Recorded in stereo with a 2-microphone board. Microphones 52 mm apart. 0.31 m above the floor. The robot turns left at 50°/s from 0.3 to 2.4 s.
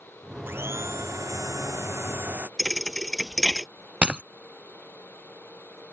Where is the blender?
45° right; by 2.5 s 145° right.